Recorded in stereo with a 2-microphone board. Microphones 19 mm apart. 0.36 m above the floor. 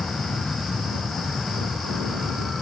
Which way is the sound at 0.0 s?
40° left (ahead or behind).